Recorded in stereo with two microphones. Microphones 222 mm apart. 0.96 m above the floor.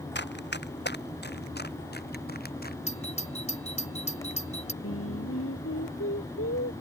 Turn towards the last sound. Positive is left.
turn(degrees=85)